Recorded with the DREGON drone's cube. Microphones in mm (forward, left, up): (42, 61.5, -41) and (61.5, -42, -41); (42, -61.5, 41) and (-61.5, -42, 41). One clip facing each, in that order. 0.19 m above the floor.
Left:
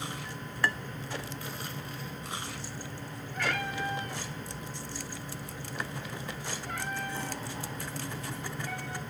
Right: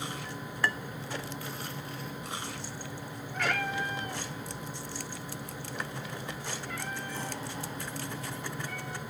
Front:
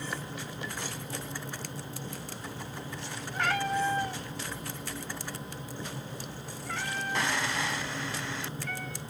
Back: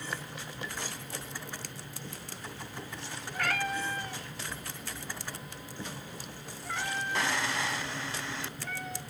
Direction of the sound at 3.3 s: 70° right.